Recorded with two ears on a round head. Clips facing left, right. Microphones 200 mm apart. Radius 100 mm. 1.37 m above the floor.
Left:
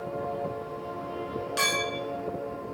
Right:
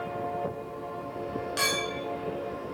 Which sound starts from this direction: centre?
A clink, at 1.6 s.